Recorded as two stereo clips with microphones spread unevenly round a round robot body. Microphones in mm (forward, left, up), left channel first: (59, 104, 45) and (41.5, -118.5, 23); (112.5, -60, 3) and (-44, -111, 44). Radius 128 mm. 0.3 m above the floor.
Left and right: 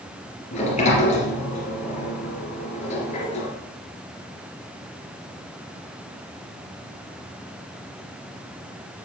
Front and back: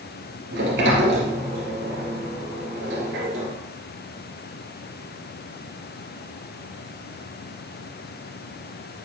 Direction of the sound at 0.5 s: 150° left.